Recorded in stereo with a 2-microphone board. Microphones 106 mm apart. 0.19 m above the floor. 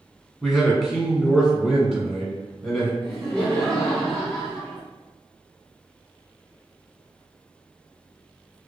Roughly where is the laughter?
Centre.